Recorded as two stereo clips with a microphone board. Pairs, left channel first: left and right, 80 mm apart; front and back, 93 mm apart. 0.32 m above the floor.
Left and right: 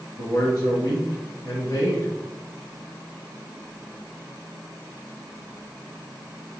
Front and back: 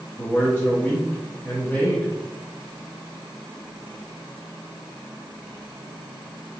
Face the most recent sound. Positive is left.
turn(degrees=65)